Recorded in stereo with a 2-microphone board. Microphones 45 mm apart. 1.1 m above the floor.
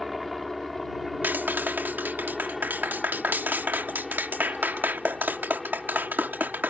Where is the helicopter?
5° right (ahead or behind); by 6.7 s centre (ahead or behind).